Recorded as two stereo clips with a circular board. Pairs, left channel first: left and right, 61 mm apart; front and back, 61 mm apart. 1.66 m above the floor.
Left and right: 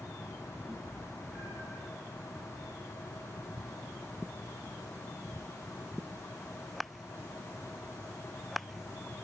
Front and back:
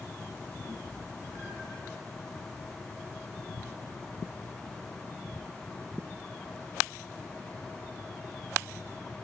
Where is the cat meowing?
10° left, 5 m; by 1.8 s 25° left, 4.5 m.